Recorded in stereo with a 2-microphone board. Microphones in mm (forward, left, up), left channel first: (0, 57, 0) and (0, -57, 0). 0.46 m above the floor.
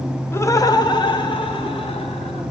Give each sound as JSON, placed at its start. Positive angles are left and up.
{"t": 0.3, "sound": "laughter", "side_deg": 20, "distance_m": 1.0}